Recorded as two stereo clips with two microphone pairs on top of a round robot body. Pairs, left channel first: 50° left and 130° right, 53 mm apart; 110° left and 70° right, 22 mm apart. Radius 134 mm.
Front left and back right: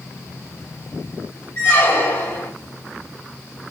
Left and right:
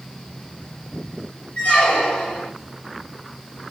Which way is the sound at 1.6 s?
100° left.